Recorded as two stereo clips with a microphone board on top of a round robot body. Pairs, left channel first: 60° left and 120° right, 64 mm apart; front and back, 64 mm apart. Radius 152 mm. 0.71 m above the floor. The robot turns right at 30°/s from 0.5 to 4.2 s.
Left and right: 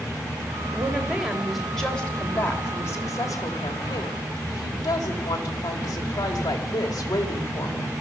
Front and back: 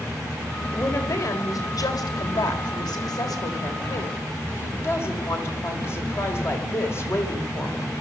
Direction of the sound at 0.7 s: 55° right.